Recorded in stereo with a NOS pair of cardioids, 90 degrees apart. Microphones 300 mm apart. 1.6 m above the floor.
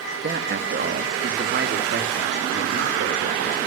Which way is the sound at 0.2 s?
35° right.